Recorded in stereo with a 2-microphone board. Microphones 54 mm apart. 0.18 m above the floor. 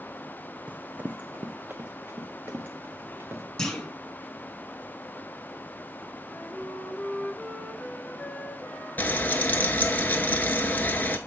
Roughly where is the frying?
Left.